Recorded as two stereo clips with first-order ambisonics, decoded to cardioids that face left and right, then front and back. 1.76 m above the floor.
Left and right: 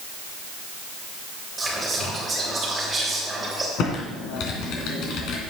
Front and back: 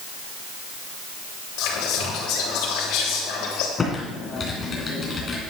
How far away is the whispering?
About 3.5 m.